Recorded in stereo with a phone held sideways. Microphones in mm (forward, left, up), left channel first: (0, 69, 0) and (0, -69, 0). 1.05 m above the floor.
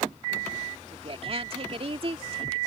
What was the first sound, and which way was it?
A woman speaking, 45° right (ahead or behind).